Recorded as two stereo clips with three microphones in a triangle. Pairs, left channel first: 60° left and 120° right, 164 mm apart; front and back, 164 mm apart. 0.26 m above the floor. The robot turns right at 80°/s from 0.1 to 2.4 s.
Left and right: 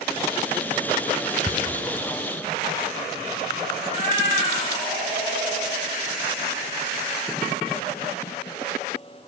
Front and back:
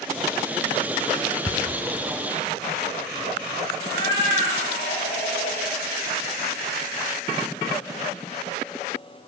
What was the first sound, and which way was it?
Ticking, 130° left.